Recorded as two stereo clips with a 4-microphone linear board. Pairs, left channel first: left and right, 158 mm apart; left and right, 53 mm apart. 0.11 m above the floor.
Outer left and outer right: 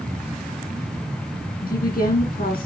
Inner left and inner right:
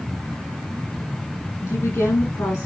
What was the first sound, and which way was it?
A woman speaking, 70° left (ahead or behind).